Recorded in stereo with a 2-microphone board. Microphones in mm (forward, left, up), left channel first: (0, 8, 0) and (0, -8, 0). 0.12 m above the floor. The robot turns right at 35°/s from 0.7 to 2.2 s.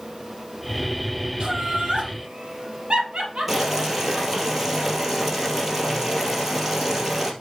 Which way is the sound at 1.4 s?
55° right (ahead or behind).